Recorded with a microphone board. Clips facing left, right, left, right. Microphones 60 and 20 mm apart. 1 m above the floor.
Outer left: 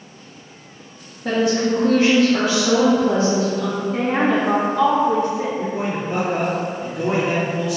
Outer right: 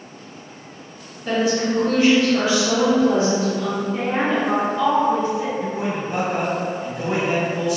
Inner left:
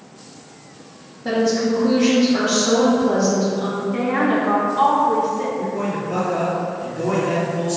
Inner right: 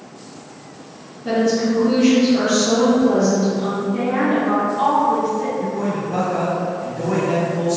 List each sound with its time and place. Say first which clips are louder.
1.2 s a woman speaking: outer left 2 dB, inner right 1 dB; 65° left (ahead or behind), 1.3 m
3.9 s a woman speaking: outer left 4 dB, inner left 1 dB; 70° left (ahead or behind), 0.7 m
5.6 s a man speaking: outer left 1 dB, inner right 1 dB; 60° left (ahead or behind), 1.8 m